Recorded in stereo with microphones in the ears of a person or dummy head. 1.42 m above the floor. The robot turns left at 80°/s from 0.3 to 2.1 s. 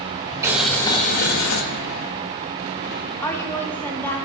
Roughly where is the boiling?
Behind.